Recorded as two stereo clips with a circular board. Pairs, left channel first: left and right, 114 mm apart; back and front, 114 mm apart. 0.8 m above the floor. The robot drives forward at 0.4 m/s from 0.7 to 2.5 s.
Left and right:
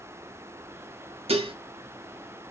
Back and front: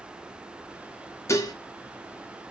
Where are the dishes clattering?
115° right, 0.5 m; by 1.6 s 125° right, 0.6 m.